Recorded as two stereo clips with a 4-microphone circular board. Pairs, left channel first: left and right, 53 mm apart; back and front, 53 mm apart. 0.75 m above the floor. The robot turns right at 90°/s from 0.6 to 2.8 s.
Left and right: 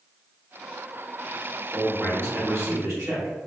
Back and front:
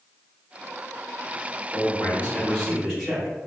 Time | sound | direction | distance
1.7 | a man speaking | straight behind | 1.9 m